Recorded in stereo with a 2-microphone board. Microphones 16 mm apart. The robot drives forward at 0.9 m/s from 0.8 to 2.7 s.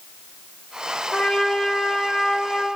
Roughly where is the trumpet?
Left.